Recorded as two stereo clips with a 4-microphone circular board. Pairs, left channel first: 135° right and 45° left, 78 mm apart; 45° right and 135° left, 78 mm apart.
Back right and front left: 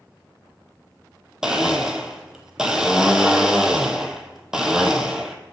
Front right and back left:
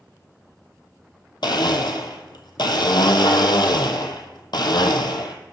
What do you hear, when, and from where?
1.4 s a blender: 35° right, 0.7 m